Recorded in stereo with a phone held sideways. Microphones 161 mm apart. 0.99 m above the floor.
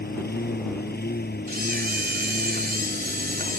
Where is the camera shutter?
75° right (ahead or behind).